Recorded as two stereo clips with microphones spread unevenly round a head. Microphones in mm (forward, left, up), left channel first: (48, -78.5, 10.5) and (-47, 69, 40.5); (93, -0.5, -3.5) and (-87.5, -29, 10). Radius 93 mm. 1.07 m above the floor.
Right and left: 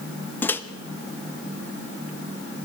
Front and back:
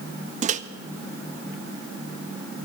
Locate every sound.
0.4 s a microwave: 125° right, 0.6 m